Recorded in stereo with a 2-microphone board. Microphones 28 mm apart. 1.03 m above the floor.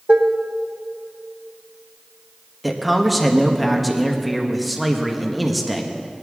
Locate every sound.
0.1 s dishes clattering: 65° right (ahead or behind), 0.8 m
2.6 s a man speaking: 5° right (ahead or behind), 1.1 m